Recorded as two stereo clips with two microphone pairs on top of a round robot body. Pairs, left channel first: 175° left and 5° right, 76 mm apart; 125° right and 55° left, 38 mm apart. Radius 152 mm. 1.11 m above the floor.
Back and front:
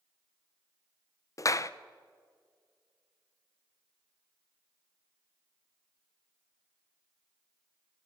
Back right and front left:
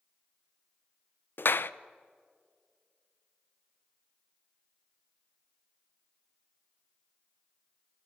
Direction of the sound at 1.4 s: 140° right.